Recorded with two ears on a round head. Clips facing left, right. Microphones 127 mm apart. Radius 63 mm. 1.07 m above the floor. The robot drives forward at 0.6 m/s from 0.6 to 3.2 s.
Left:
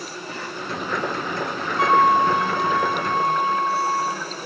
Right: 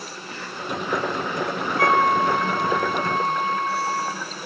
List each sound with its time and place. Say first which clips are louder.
0.0 s an insect: left 3 dB; 80° left, 2.5 m; by 4.5 s 55° left (ahead or behind), 3.5 m
1.8 s a flute: left 3 dB; 20° left (ahead or behind), 0.6 m; by 4.2 s 10° left (ahead or behind), 1.2 m